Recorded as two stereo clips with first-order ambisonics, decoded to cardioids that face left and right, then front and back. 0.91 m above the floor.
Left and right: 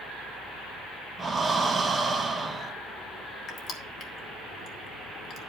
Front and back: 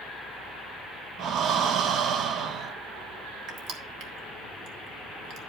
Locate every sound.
1.2 s breathing: 160° right, 0.7 m
3.5 s crushing: 145° left, 1.4 m